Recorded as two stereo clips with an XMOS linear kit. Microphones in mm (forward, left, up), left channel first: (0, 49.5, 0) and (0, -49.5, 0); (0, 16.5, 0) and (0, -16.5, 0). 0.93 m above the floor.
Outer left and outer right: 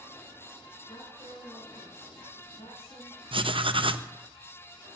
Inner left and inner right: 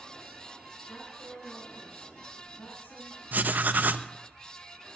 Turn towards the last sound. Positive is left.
turn(degrees=-60)  # may be behind; listen again after turning